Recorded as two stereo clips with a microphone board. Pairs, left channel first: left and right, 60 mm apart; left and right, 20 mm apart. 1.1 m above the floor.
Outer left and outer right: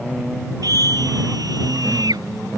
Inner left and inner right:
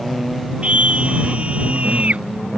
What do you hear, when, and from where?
0.6 s a scream: 75° right (ahead or behind); by 2.2 s 85° right